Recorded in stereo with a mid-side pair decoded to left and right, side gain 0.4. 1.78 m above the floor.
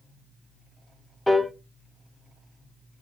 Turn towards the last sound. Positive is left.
turn(degrees=5)